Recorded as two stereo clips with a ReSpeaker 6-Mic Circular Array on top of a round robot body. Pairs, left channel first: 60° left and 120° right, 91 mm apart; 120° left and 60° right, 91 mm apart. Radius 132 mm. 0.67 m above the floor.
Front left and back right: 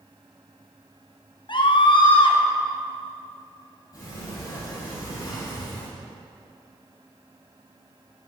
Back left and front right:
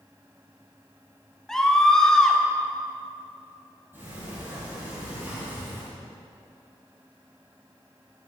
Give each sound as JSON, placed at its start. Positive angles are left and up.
{"t": 1.5, "sound": "a scream", "azimuth_deg": 35, "distance_m": 2.5}
{"t": 3.9, "sound": "a sliding door", "azimuth_deg": 10, "distance_m": 6.0}